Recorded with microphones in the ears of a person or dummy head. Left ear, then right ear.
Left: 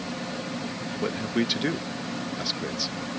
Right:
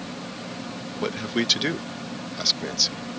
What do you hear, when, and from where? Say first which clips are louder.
1.0 s a man speaking: right 3 dB; 30° right (ahead or behind)